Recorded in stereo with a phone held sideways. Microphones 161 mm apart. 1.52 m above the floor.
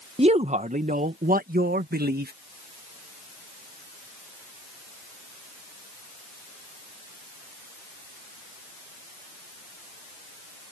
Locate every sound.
0.2 s a man speaking: 40° right (ahead or behind); by 2.3 s 75° right (ahead or behind)